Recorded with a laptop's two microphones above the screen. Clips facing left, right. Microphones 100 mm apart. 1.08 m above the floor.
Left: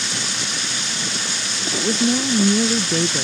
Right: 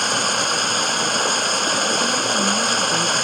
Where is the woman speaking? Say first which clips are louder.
Left 1 dB; 45° left (ahead or behind).